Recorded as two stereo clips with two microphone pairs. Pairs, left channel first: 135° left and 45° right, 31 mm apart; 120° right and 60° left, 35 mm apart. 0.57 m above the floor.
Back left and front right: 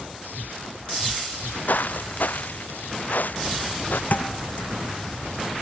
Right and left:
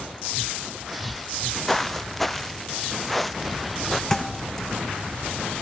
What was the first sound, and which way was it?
Footsteps, 160° left.